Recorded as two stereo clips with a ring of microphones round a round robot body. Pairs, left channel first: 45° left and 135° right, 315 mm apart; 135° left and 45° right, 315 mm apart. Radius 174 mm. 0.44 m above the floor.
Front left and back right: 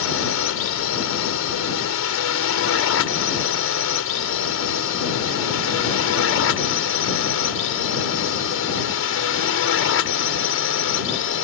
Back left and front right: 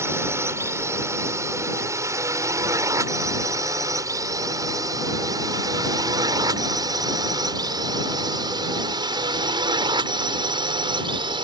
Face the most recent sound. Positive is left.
turn(degrees=25)